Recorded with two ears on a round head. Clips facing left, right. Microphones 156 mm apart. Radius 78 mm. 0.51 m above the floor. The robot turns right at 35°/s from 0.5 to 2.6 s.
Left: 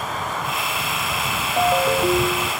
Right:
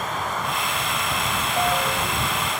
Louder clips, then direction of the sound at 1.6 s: Left 7 dB; 10° left.